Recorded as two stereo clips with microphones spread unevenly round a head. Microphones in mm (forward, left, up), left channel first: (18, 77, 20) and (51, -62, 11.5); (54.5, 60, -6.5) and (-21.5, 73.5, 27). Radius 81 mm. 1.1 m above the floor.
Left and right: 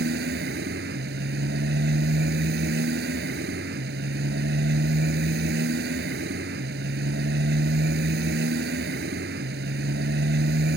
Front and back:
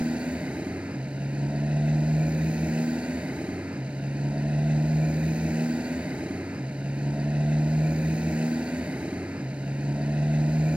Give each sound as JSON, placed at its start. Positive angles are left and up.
{"t": 0.0, "sound": "a motorcycle", "azimuth_deg": -110}